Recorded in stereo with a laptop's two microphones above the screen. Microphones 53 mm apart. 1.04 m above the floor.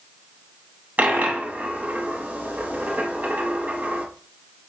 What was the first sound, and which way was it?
A dropped coin, 30° right (ahead or behind).